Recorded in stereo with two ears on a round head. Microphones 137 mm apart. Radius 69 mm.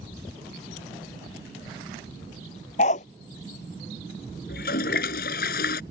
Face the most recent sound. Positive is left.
turn(degrees=60)  # may be behind; listen again after turning